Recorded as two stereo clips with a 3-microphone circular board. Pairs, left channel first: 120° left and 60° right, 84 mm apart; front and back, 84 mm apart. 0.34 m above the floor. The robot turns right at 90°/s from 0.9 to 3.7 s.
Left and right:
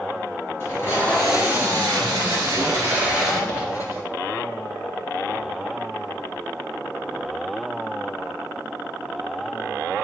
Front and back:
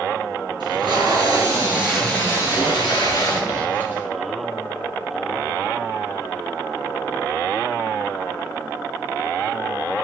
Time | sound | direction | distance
0.6 | tape being pulled | 175° left | 4.5 m